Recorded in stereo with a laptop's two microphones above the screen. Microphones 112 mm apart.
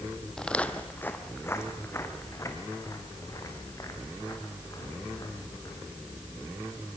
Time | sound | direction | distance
0.4 | footsteps | 5° left (ahead or behind) | 1.5 m